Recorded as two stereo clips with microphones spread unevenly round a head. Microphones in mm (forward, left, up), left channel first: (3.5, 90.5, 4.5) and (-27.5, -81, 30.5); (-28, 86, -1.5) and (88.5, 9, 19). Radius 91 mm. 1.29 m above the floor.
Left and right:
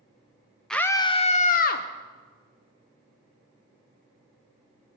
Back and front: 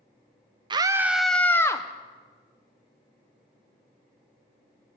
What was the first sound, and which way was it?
A scream, 10° left.